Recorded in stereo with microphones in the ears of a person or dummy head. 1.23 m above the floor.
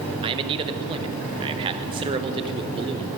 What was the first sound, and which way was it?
A man speaking, 25° right (ahead or behind).